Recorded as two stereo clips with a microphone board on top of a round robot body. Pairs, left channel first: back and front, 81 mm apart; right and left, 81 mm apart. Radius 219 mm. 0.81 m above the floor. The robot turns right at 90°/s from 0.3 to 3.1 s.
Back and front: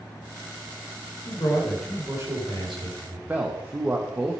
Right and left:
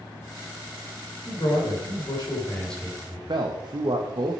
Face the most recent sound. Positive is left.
turn(degrees=65)